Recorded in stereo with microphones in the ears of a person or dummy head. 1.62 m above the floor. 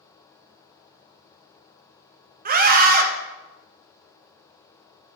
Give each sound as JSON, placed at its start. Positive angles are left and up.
{"t": 2.5, "sound": "a scream", "side_deg": -50, "distance_m": 1.0}